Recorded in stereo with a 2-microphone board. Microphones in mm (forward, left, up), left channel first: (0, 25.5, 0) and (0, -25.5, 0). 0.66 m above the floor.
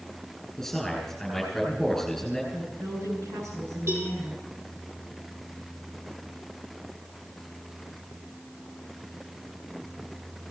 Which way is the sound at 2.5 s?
80° right.